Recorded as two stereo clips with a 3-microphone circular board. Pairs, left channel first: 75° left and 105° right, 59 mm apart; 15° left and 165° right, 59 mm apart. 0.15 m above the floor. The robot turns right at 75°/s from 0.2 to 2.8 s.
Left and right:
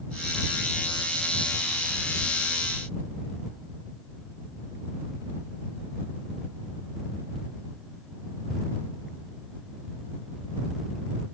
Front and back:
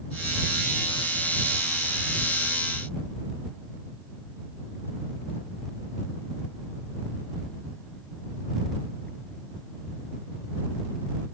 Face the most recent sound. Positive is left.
No sound to turn to.